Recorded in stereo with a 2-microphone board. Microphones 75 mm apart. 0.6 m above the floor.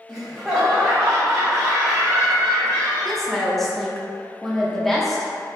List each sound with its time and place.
0.1 s laughter: 5° right (ahead or behind), 1.2 m
3.0 s a woman speaking: 5° left (ahead or behind), 0.8 m